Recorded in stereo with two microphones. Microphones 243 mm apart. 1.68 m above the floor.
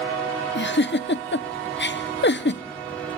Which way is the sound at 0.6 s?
50° left (ahead or behind).